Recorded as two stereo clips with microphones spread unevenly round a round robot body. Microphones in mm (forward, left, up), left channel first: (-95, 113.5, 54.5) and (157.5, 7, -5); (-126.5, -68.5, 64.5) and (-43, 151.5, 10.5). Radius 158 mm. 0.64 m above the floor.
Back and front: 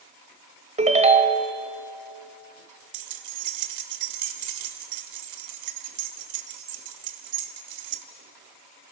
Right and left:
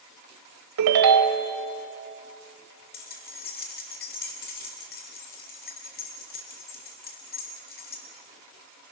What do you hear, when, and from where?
0.8 s a ringtone: 45° left, 1.1 m
2.9 s keys jangling: 50° right, 1.3 m